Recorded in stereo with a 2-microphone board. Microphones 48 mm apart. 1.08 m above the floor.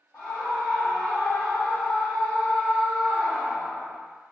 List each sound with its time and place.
0.1 s a scream: 60° left (ahead or behind), 1.6 m; by 4.0 s 45° right (ahead or behind), 1.0 m